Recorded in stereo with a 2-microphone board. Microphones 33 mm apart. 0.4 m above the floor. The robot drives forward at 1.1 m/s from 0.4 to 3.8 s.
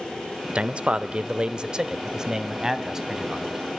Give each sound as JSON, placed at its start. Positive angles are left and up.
{"t": 0.6, "sound": "a man speaking", "side_deg": -35, "distance_m": 1.1}